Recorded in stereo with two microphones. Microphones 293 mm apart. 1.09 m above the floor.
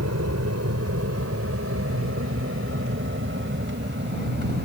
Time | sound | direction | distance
0.0 | an aircraft | 60° right (ahead or behind) | ?